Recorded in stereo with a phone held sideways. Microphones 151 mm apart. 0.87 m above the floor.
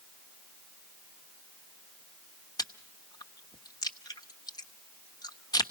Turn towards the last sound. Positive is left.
turn(degrees=25)  # may be behind; listen again after turning